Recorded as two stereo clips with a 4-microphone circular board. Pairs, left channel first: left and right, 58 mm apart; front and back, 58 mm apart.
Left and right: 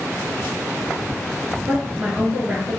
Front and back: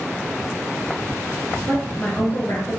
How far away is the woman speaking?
About 1.6 m.